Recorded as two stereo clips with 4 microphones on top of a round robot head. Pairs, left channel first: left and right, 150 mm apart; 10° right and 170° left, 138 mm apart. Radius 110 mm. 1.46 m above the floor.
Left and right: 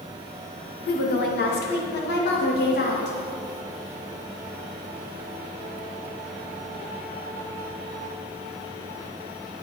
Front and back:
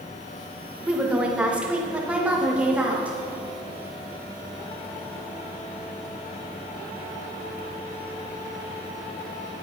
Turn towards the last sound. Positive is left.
turn(degrees=90)